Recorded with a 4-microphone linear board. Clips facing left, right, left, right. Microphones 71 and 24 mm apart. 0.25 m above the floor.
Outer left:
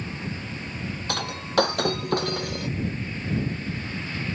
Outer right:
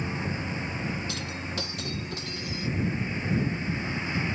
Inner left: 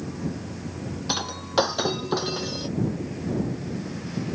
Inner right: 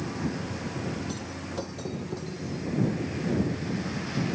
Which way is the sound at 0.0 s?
15° right (ahead or behind).